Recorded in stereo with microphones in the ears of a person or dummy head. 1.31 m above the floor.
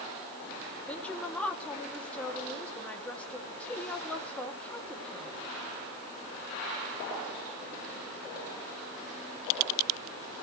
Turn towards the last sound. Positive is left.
turn(degrees=10)  # may be behind; listen again after turning